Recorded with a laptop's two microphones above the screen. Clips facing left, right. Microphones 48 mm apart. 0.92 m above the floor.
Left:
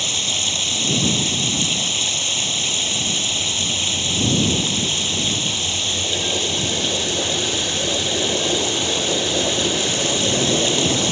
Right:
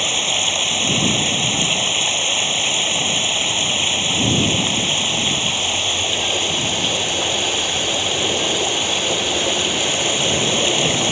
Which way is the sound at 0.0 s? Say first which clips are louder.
Right 4 dB; 30° right (ahead or behind).